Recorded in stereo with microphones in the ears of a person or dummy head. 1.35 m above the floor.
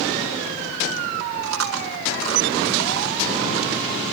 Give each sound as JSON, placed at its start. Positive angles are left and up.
{"t": 1.4, "sound": "chewing", "side_deg": -85, "distance_m": 4.0}